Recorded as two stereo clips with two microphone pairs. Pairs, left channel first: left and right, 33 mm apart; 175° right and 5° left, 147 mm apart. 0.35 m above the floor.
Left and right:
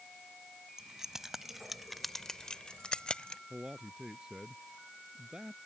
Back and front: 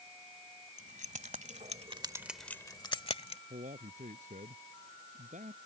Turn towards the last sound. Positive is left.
turn(degrees=-25)